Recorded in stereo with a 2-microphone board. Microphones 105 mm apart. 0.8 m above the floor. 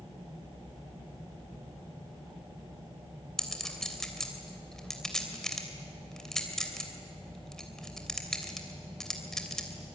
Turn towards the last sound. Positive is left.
turn(degrees=5)  # may be behind; listen again after turning